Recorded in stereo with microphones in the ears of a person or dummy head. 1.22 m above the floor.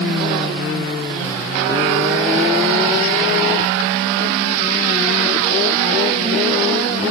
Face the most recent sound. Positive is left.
No sound to turn to.